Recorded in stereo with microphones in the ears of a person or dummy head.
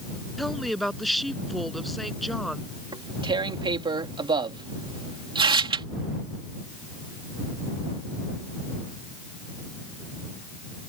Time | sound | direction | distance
0.4 | a woman speaking | centre (ahead or behind) | ?
2.9 | tearing paper | 25° right (ahead or behind) | ?